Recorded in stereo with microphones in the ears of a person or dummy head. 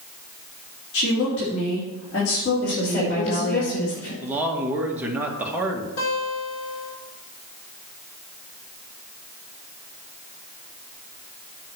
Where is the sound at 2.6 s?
55° left (ahead or behind), 4.5 m.